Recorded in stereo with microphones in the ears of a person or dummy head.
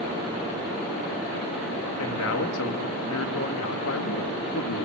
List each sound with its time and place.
2.0 s a man speaking: 75° left (ahead or behind), 3 m